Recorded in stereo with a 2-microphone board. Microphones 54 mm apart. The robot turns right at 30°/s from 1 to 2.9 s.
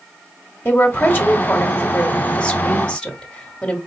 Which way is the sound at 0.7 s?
105° left.